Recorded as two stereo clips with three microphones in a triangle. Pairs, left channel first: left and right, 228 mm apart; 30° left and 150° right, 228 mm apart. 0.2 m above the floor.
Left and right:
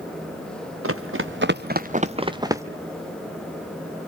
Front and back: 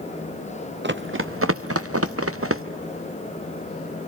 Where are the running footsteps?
110° right, 1.4 m; by 2.6 s 170° right, 1.5 m.